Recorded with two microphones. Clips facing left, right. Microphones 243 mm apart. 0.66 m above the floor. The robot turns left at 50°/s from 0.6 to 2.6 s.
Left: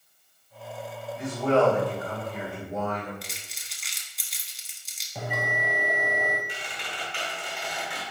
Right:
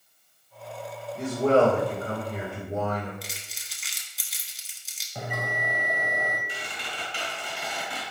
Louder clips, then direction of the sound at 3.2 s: Even; centre (ahead or behind).